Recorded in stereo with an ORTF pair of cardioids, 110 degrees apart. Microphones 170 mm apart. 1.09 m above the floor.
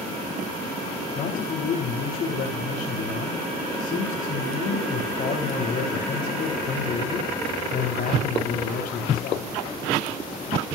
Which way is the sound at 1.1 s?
50° left.